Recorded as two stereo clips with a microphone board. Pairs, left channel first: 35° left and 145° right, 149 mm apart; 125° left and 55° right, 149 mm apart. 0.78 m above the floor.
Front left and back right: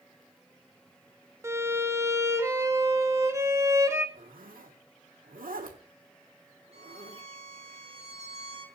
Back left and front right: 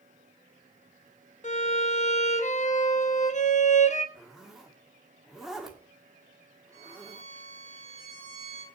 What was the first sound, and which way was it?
A violin, 145° left.